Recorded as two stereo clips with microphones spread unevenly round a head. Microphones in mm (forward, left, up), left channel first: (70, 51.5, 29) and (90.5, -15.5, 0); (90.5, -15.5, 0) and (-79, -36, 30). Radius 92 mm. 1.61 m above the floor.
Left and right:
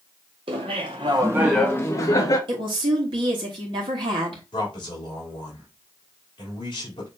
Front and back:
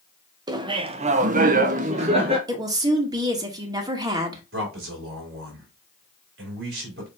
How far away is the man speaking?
About 3 m.